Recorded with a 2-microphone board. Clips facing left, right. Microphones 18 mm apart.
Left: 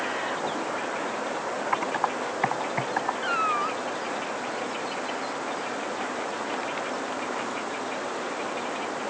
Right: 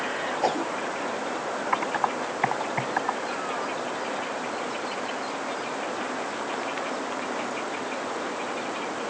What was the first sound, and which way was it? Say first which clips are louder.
A whoosh: right 4 dB; 65° right (ahead or behind).